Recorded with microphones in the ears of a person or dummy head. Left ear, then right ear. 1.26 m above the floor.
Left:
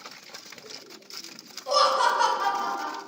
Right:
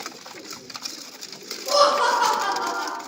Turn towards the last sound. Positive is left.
turn(degrees=5)  # may be behind; listen again after turning